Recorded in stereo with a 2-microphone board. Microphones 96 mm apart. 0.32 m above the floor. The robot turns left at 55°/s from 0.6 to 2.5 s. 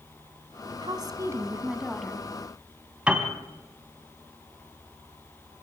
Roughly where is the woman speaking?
Behind right.